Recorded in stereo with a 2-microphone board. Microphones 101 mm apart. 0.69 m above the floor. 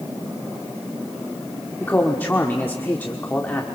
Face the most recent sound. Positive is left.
turn(degrees=20)  # may be behind; listen again after turning